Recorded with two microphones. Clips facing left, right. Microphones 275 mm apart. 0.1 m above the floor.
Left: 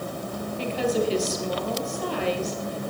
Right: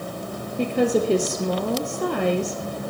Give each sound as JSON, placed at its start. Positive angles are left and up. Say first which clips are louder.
{"t": 0.6, "sound": "a woman speaking", "louder": "right 5 dB", "side_deg": -55, "distance_m": 2.5}